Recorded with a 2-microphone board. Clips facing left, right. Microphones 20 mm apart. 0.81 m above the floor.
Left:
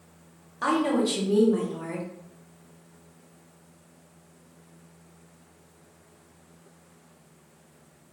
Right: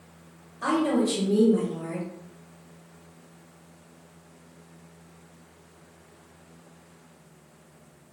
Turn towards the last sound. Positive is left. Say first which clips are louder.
# even
turn(degrees=40)  # may be behind; listen again after turning